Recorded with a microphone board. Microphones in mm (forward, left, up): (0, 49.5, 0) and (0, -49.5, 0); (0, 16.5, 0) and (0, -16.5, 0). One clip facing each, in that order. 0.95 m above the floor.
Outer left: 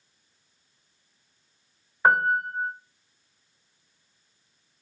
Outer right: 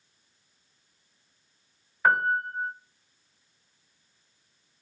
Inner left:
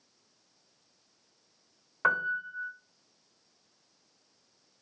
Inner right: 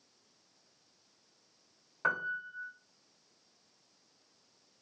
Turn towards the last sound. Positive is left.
turn(degrees=30)  # may be behind; listen again after turning